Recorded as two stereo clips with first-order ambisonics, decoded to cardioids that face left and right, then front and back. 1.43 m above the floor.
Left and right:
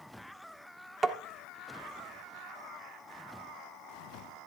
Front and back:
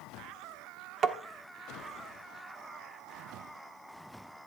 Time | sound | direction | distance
1.0 | tapping | 150° right | 1.1 m